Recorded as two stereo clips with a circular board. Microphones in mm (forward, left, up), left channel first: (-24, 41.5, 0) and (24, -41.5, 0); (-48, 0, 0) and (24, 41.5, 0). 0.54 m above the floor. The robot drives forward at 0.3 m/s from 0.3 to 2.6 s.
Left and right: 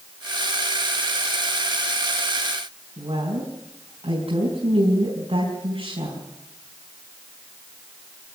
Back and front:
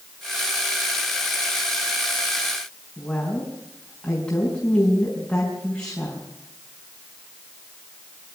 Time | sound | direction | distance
3.0 | a woman speaking | 75° right | 5 m